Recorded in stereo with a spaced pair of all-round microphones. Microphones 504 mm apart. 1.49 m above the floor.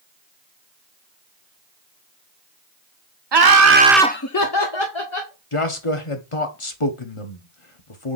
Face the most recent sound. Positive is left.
turn(degrees=75)  # may be behind; listen again after turning